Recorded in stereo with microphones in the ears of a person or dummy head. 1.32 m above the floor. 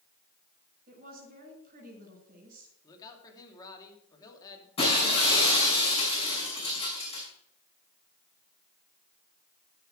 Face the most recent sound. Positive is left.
turn(degrees=30)  # may be behind; listen again after turning